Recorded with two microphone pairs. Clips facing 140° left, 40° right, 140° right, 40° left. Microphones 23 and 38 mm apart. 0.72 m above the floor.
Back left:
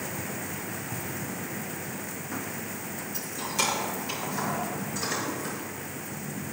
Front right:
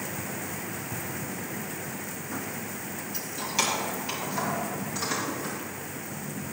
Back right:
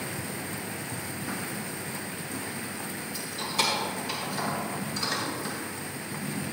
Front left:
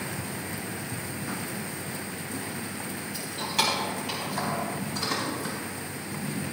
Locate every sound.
3.1 s keys jangling: 10° left, 3.5 m; by 5.5 s 20° left, 5.5 m